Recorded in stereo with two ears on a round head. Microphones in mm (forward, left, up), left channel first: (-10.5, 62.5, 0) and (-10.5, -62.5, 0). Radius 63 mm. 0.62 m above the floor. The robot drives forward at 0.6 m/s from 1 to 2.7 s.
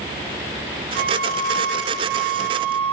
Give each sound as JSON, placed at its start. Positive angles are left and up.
{"t": 0.9, "sound": "a flute", "side_deg": -75, "distance_m": 3.5}